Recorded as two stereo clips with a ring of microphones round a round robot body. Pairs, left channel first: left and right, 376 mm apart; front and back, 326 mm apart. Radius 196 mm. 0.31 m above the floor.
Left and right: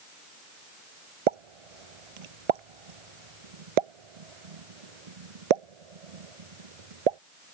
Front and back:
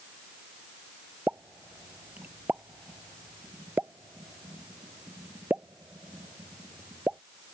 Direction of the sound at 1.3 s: 95° right.